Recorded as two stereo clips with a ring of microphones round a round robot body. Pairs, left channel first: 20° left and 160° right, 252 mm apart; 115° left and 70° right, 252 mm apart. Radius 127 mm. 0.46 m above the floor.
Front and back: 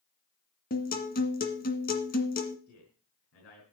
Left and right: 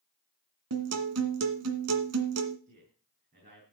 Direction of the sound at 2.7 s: 10° right.